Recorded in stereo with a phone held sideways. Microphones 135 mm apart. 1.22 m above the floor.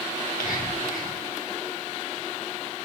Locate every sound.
0.2 s whispering: 80° left, 5 m